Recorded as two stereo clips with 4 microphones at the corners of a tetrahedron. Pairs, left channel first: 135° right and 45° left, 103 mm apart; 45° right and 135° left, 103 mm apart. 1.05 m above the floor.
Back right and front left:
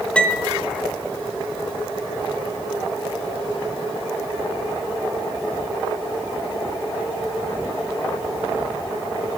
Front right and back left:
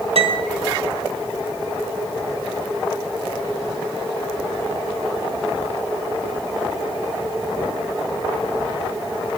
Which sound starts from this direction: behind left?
A piano, at 0.1 s.